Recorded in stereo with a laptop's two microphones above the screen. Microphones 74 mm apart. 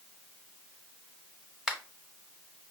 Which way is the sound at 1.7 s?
5° right (ahead or behind).